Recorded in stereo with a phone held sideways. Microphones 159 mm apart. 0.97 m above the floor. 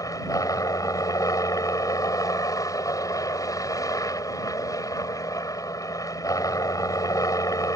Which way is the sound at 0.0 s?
20° left (ahead or behind).